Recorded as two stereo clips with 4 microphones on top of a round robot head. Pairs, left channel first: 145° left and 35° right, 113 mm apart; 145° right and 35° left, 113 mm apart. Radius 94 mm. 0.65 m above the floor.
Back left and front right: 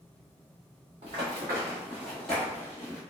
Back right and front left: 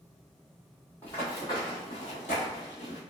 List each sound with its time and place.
1.0 s running footsteps: 70° right, 0.9 m; by 3.0 s 160° right, 1.1 m